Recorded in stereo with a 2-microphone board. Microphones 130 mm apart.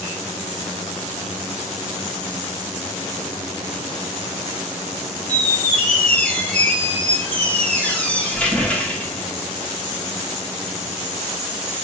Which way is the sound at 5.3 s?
10° left (ahead or behind).